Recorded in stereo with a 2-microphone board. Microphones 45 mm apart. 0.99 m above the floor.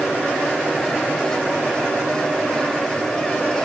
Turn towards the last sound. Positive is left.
No sound to turn to.